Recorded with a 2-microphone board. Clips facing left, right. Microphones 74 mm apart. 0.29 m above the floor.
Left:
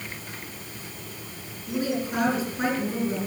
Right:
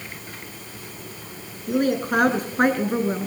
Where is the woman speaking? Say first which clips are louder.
Right 6 dB; 50° right (ahead or behind), 4.5 m.